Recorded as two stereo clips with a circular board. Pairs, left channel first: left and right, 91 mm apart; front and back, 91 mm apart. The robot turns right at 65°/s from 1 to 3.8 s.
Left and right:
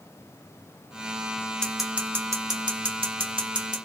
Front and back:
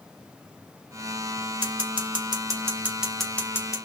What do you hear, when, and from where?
1.6 s scissors: 170° left, 1.1 m; by 3.8 s 50° right, 1.1 m